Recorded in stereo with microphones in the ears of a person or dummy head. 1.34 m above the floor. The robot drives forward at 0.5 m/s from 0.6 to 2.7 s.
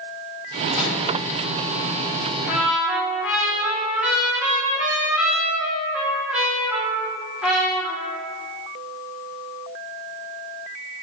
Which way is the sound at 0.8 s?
20° right (ahead or behind).